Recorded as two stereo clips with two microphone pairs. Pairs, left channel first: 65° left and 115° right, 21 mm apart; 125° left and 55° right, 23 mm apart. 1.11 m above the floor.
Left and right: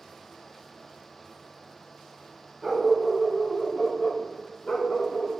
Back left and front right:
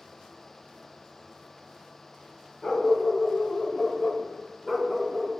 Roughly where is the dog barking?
Behind.